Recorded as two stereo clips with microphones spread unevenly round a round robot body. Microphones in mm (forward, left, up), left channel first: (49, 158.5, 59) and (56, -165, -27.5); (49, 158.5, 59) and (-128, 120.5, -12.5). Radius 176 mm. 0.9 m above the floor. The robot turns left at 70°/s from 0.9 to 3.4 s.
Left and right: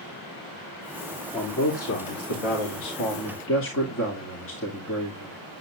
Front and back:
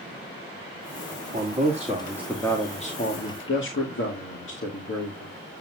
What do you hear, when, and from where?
1.3 s a man speaking: straight behind, 2 m; by 5.4 s 35° left, 2 m